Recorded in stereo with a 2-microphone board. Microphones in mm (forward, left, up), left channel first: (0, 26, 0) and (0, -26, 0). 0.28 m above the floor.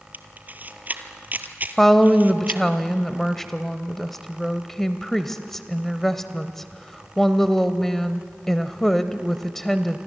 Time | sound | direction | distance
0.1 | a camera shutter | 35° right (ahead or behind) | 1.4 m
1.8 | a woman speaking | 5° left (ahead or behind) | 0.9 m